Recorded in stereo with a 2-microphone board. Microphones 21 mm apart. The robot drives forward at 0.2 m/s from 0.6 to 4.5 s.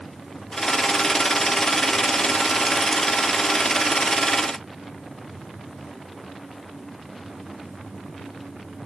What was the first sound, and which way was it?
Only background noise.